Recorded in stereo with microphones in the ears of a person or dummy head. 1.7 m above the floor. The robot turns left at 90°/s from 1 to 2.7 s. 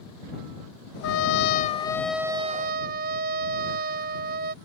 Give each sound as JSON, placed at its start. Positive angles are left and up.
{"t": 1.0, "sound": "a trumpet", "azimuth_deg": 95}